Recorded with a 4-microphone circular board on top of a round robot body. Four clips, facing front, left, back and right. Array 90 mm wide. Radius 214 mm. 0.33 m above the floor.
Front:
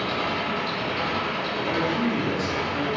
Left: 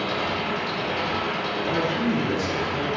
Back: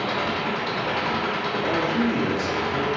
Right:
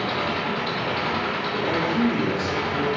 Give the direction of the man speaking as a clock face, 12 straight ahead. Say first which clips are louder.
Right 2 dB, back 1 dB; 5 o'clock.